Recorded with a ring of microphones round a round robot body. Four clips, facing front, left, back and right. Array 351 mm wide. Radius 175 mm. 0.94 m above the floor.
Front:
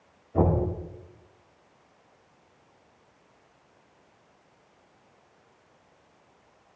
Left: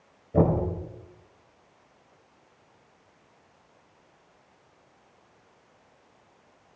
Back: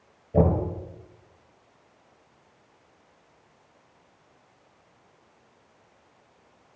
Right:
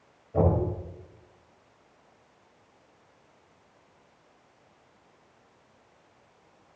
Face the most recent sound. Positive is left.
turn(degrees=145)